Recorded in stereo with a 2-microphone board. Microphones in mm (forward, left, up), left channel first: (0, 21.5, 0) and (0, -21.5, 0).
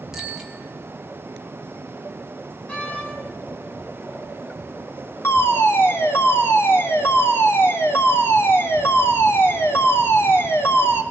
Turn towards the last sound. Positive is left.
turn(degrees=65)  # may be behind; listen again after turning